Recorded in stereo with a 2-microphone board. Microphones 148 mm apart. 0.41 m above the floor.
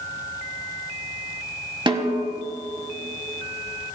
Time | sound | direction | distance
1.9 | a snare drum | 30° right (ahead or behind) | 1.1 m